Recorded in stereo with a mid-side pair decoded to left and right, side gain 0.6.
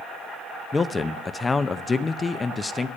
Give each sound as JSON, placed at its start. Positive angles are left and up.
{"t": 0.7, "sound": "a man speaking", "azimuth_deg": 25, "distance_m": 0.5}